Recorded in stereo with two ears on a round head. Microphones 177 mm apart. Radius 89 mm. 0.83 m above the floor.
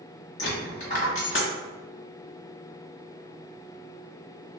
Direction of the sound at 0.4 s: 40° left (ahead or behind).